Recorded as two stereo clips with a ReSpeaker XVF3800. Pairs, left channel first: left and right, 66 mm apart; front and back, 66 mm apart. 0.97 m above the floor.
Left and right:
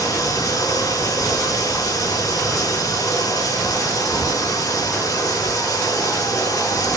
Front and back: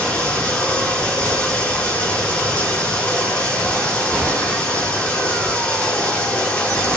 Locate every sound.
0.0 s running water: 75° left, 7 m